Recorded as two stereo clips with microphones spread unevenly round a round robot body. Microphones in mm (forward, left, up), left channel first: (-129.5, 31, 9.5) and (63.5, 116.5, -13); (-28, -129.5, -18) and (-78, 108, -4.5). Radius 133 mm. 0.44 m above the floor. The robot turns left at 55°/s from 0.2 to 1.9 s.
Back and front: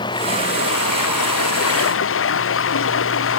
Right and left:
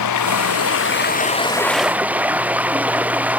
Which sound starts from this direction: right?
Running water, at 0.0 s.